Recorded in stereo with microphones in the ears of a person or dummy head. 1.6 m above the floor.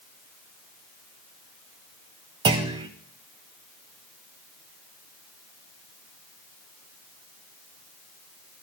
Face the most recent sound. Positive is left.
turn(degrees=-20)  # may be behind; listen again after turning